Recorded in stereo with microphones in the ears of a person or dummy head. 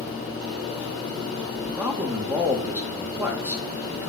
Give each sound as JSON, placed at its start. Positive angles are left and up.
{"t": 1.6, "sound": "a man speaking", "side_deg": -10, "distance_m": 2.5}